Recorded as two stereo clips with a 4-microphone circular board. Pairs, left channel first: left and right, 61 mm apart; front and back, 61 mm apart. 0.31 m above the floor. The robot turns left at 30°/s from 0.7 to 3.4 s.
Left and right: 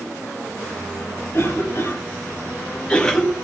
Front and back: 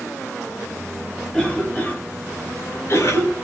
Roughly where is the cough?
Left.